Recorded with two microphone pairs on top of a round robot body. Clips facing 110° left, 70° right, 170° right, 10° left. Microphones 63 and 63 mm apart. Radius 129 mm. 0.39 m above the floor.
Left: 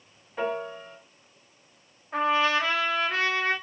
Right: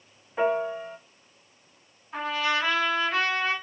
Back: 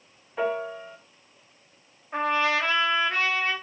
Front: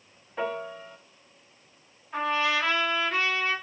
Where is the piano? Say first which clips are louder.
Right 5 dB, back 4 dB; 55° right, 0.7 m.